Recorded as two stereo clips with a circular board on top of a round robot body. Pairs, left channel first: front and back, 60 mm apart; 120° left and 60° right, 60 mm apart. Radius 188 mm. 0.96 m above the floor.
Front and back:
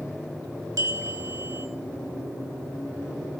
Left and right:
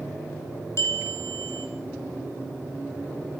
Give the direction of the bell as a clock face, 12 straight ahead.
7 o'clock.